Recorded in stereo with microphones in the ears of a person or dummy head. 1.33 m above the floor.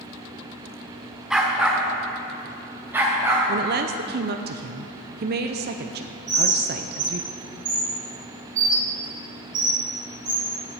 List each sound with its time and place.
1.3 s a dog barking: centre (ahead or behind), 1.3 m; by 3.5 s 10° right (ahead or behind), 3 m
3.5 s a woman speaking: 50° right (ahead or behind), 0.6 m
6.3 s a bird: 40° right (ahead or behind), 3 m